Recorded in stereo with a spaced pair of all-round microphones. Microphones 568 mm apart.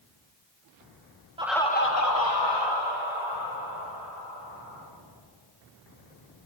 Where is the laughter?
10° right (ahead or behind), 0.5 m; by 4.9 s 60° left (ahead or behind), 3 m.